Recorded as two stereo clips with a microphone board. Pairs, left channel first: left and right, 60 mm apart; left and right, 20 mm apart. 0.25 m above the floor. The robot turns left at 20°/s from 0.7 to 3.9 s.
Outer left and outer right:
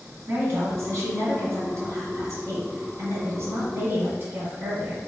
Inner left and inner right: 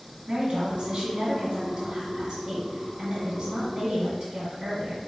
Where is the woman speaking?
65° right, 1.7 m; by 5.0 s 130° right, 1.7 m.